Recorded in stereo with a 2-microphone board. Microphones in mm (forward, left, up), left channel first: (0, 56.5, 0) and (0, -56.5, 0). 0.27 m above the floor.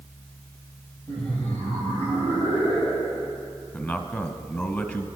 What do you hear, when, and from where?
1.1 s laughter: 10° left (ahead or behind), 9.5 m; by 3.4 s 15° left (ahead or behind), 11.5 m
3.7 s a man speaking: 20° left (ahead or behind), 2.0 m